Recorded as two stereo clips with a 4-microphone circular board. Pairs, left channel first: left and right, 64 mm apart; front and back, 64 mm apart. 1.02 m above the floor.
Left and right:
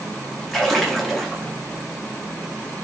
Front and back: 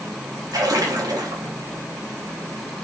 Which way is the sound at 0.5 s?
Straight behind.